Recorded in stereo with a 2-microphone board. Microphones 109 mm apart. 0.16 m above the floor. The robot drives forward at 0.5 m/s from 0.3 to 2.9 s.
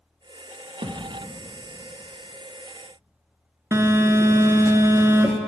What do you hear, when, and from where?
0.8 s a thud: 60° right (ahead or behind), 1.4 m; by 1.2 s 55° right (ahead or behind), 1.5 m
3.7 s a phone buzzing: 25° right (ahead or behind), 0.5 m